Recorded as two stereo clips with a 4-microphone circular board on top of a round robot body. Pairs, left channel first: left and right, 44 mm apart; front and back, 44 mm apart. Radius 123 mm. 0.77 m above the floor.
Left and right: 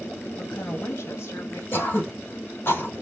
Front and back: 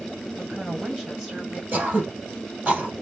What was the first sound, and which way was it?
A woman speaking, 115° left.